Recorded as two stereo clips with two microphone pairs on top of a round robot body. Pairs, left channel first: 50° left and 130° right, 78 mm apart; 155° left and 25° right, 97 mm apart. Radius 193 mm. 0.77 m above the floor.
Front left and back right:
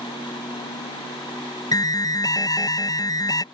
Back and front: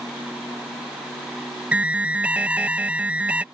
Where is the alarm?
40° left.